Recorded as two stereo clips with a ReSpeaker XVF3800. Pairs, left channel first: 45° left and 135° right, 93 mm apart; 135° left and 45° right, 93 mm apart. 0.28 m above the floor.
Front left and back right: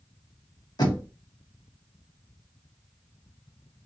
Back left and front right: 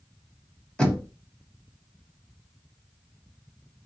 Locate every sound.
0.8 s knocking: 60° left, 1.3 m